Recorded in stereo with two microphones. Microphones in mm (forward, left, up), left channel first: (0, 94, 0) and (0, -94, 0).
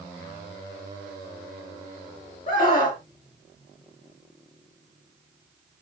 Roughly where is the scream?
Left.